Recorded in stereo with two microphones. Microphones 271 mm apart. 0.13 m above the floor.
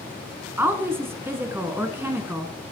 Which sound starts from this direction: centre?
A woman speaking, at 0.6 s.